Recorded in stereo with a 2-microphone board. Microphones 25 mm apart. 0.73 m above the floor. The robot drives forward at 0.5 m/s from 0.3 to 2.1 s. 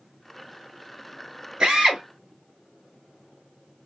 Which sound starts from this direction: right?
A drill, at 1.6 s.